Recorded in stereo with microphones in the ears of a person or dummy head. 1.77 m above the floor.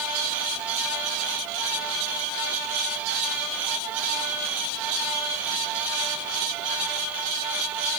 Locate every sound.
Only background noise.